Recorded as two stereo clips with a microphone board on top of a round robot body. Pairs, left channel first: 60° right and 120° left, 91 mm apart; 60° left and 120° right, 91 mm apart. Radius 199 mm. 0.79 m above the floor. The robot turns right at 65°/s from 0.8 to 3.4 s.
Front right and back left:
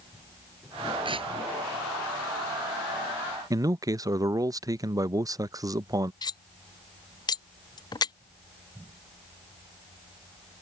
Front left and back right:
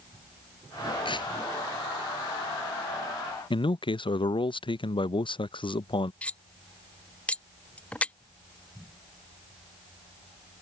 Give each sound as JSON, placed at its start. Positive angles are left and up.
{"t": 1.1, "sound": "tearing paper", "azimuth_deg": 90}
{"t": 3.5, "sound": "a man speaking", "azimuth_deg": 75}
{"t": 6.2, "sound": "cutlery clinking", "azimuth_deg": -15}